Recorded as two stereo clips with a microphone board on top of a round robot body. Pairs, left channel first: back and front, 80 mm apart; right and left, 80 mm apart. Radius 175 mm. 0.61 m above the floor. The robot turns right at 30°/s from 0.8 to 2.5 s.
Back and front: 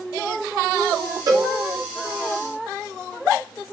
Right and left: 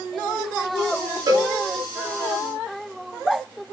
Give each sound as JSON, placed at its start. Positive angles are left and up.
{"t": 1.3, "sound": "a cowbell", "azimuth_deg": 45, "distance_m": 0.5}